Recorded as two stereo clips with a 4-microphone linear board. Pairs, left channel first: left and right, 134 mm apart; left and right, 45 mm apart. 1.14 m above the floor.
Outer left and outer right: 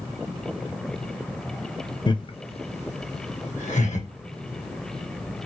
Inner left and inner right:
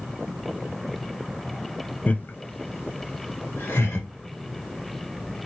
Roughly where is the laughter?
Left.